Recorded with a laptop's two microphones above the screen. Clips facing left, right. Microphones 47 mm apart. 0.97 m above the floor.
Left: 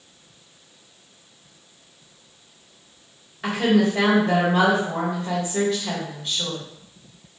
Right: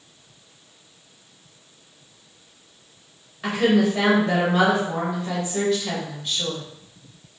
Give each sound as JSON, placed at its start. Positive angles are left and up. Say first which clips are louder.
{"t": 3.4, "sound": "a woman speaking", "louder": "even", "side_deg": 5, "distance_m": 1.2}